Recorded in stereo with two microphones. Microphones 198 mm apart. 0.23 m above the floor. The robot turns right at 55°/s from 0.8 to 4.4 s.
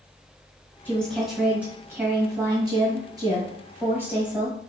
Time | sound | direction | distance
0.8 | a woman speaking | 10° left (ahead or behind) | 1.6 m